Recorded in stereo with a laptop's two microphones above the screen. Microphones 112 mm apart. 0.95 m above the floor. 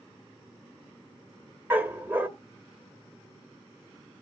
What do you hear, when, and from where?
1.7 s a dog barking: 15° right (ahead or behind), 1.5 m